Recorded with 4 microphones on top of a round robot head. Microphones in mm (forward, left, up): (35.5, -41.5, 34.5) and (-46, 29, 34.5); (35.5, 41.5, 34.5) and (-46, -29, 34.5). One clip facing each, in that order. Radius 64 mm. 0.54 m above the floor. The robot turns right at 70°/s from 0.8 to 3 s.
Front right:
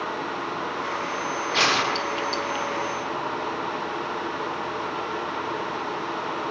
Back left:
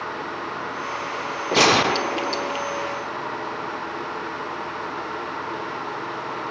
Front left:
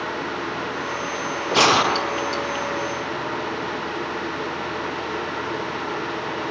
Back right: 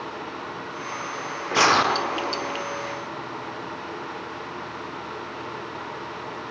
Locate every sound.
1.5 s a gunshot: 100° left, 1.1 m; by 2.7 s straight behind, 1.1 m